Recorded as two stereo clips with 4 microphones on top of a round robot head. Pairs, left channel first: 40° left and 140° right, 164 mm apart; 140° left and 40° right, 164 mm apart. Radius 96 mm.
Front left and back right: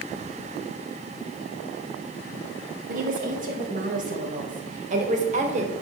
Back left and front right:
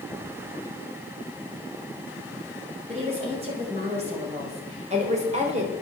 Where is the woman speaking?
100° right, 5.5 m; by 5.7 s 90° right, 3.5 m.